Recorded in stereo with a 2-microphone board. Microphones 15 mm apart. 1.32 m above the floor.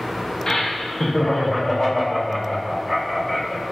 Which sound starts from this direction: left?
Laughter, at 0.5 s.